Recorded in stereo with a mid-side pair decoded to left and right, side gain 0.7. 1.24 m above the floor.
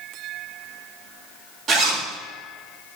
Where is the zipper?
40° right, 1.9 m.